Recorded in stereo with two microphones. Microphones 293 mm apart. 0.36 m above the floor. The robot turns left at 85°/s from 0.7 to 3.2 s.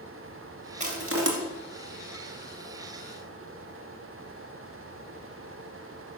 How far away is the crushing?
About 2 m.